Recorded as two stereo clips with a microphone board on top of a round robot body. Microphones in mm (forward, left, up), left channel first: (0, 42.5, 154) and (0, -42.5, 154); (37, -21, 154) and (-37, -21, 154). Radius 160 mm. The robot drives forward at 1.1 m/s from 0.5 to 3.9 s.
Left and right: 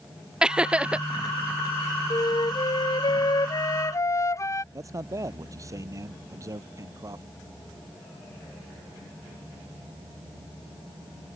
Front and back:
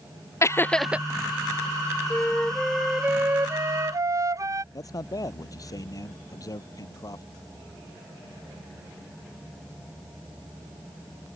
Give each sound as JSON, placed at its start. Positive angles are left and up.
{"t": 0.4, "sound": "laughter", "azimuth_deg": -15}
{"t": 2.1, "sound": "a flute", "azimuth_deg": 65}
{"t": 4.7, "sound": "a man speaking", "azimuth_deg": -40}